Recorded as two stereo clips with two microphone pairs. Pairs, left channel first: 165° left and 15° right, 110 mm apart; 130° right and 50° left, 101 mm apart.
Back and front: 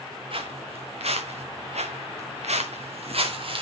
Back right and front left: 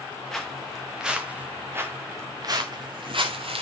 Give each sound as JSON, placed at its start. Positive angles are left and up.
{"t": 0.3, "sound": "footsteps", "azimuth_deg": -45, "distance_m": 2.5}